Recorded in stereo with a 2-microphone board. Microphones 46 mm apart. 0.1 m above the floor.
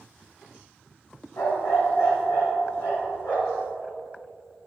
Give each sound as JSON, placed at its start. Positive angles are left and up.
{"t": 1.4, "sound": "a dog barking", "side_deg": 80, "distance_m": 1.7}